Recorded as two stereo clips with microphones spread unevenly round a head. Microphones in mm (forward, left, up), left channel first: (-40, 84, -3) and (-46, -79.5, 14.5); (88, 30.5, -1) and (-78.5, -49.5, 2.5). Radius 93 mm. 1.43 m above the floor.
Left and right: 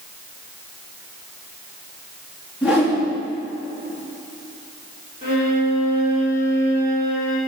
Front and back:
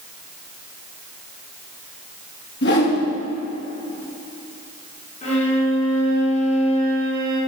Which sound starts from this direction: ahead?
A whoosh, at 2.6 s.